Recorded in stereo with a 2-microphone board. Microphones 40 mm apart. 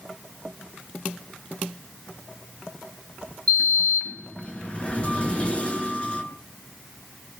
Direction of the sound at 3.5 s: 30° left (ahead or behind).